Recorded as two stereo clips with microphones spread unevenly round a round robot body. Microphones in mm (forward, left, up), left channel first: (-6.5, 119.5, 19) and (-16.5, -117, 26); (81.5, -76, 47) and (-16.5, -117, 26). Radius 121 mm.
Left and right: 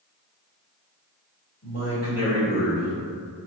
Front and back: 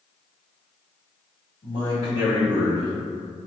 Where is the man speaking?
60° left, 1.9 m.